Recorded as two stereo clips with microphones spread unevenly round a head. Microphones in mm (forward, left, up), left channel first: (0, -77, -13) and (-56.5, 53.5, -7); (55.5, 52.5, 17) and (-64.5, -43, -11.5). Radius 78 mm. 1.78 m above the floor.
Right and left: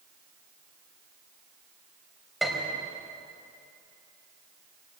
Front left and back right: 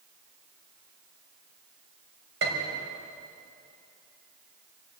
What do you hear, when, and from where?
2.4 s a piano: 160° right, 5 m